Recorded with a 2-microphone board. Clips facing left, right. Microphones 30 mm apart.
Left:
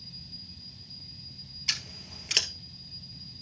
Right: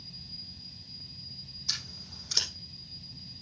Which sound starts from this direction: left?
Scissors, at 1.7 s.